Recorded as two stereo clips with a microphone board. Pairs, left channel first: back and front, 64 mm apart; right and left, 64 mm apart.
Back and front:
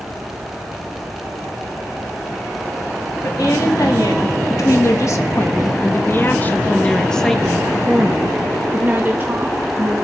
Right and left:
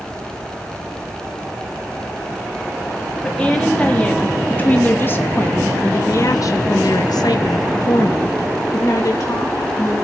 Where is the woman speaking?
165° right, 2.5 m; by 9.9 s 50° right, 1.8 m.